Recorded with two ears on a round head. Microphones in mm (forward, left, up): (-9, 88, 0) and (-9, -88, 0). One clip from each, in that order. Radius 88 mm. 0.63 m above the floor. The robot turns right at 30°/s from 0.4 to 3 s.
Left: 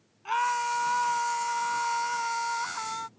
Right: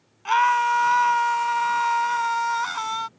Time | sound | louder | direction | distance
0.2 | a scream | right 8 dB | 135° right | ?